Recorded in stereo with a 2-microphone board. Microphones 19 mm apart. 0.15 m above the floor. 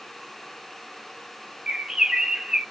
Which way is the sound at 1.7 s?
40° right (ahead or behind).